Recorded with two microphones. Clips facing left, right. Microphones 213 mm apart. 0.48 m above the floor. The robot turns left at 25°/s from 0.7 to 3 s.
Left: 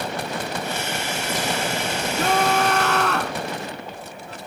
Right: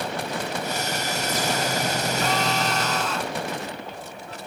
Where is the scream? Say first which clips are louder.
Left 8 dB; 45° left (ahead or behind); by 3.4 s 65° left (ahead or behind).